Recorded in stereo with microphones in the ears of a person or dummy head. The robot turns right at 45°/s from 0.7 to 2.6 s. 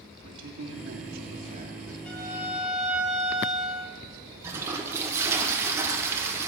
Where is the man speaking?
80° right, 2.5 m; by 1.9 s 25° right, 2.5 m.